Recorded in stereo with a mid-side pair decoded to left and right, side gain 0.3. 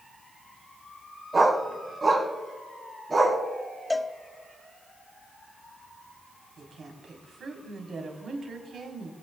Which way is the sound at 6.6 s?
60° right.